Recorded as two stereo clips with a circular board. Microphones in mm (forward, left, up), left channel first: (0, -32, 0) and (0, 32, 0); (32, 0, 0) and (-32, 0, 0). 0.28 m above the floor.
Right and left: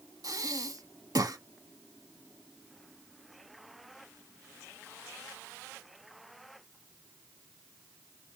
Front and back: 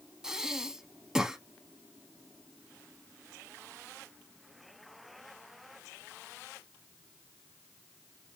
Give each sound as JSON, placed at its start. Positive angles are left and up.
{"t": 0.2, "sound": "breathing", "azimuth_deg": 100, "distance_m": 0.6}